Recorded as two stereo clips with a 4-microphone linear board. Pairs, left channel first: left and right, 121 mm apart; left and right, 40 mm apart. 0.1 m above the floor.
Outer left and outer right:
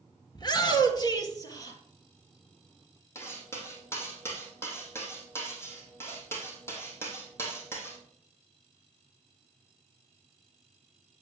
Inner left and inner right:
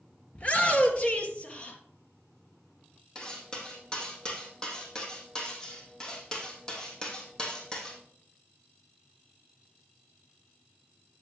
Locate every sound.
0.3 s a shout: 35° left (ahead or behind), 1.6 m; by 1.8 s 30° left (ahead or behind), 2.5 m
3.1 s cutlery clinking: 20° left (ahead or behind), 2.5 m